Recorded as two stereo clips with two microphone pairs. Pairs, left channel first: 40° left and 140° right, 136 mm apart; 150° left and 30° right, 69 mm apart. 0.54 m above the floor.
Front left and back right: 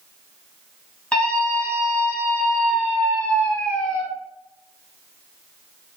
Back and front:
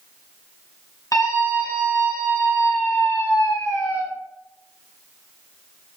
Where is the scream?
120° left, 4 m.